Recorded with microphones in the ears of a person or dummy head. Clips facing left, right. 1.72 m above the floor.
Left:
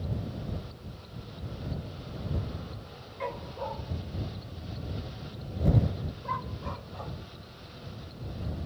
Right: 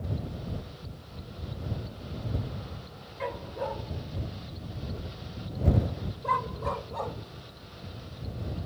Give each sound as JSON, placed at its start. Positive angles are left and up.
{"t": 3.2, "sound": "a dog barking", "side_deg": 0}